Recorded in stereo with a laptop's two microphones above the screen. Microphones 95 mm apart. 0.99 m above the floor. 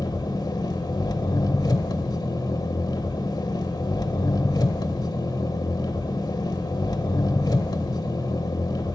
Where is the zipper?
No zipper in this recording.